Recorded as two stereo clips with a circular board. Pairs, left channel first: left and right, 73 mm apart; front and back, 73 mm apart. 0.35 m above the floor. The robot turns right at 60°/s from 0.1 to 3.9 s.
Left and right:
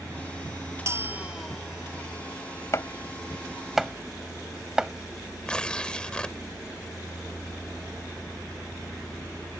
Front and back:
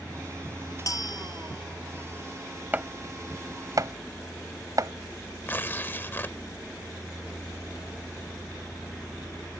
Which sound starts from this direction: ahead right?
A bell, at 0.9 s.